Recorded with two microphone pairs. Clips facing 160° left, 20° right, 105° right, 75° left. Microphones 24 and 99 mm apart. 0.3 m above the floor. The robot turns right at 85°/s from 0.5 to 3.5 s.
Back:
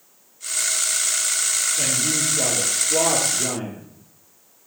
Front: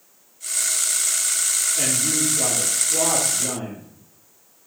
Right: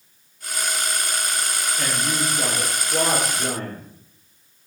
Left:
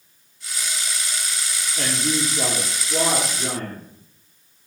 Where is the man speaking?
25° left, 5 m; by 3.9 s 175° left, 5 m.